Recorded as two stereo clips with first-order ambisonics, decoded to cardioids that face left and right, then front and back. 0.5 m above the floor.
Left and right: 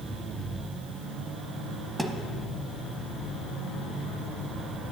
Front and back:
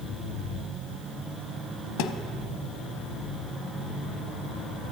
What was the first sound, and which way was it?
A thud, 5° right.